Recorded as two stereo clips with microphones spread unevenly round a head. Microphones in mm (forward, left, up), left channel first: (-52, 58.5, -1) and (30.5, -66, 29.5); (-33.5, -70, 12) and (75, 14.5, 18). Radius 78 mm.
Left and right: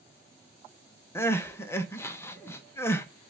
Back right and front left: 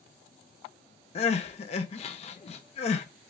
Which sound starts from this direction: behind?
Crying, at 1.1 s.